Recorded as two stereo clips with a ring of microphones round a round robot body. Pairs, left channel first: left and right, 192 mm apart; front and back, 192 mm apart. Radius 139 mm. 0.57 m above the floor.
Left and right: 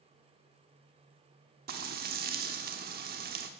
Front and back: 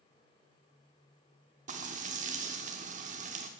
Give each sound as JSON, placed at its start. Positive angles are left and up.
{"t": 1.7, "sound": "frying", "azimuth_deg": -130, "distance_m": 1.0}